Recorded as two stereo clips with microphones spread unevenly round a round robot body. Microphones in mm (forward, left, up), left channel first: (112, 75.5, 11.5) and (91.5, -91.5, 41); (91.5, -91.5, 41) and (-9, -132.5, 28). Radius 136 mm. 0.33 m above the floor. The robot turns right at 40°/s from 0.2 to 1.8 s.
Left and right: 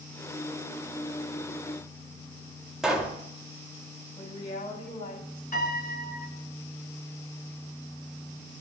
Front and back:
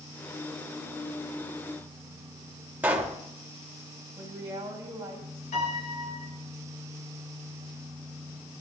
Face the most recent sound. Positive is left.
turn(degrees=50)